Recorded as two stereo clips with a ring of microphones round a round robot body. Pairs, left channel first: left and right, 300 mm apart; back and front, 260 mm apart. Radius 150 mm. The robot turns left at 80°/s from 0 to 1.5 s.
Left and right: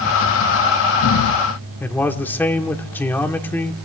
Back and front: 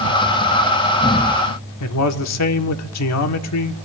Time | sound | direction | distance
1.8 | a man speaking | 175° left | 1.4 m